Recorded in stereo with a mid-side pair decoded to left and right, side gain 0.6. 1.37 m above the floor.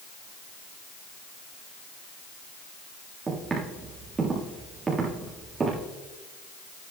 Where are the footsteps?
25° right, 6.5 m.